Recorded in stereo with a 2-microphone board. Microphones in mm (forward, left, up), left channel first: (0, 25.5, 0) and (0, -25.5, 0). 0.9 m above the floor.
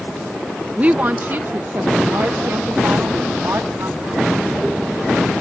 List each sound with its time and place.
0.8 s a woman speaking: 30° right (ahead or behind); by 4.3 s 70° right (ahead or behind)